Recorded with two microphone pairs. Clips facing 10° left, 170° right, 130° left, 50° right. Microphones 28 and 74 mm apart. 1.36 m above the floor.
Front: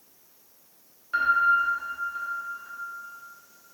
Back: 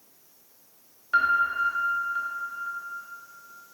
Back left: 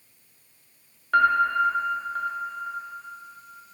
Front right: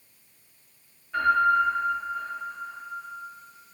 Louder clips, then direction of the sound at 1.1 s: Front 1 dB, back left 1 dB; 120° left.